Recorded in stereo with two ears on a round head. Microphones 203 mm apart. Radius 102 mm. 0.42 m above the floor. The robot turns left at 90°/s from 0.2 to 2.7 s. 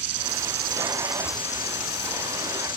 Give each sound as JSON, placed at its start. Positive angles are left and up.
{"t": 0.0, "sound": "an insect", "azimuth_deg": -95}